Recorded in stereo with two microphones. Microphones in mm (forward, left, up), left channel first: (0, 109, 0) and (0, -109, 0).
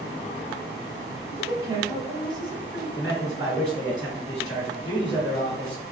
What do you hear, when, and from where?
1.3 s a woman speaking: 15° right (ahead or behind), 1.1 m
3.0 s a man speaking: 20° right (ahead or behind), 1.8 m